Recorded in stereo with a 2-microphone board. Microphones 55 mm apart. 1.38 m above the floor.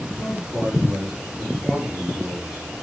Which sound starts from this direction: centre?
A man speaking, at 0.2 s.